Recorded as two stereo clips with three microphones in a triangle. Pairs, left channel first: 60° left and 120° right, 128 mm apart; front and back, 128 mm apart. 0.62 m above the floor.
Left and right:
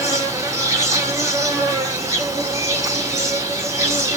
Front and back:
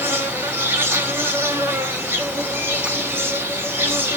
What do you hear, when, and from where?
0.0 s an insect: 140° right, 1.0 m